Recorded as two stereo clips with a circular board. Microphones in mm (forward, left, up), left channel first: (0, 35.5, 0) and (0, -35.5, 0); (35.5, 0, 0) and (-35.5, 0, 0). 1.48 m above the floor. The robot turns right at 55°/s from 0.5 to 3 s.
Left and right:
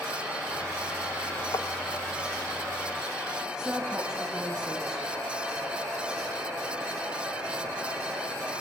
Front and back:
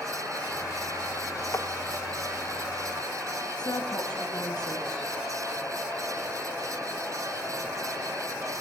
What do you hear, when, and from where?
1.5 s tapping: 50° left, 0.7 m; by 1.7 s 60° left, 0.7 m
3.6 s a woman speaking: 10° right, 2.5 m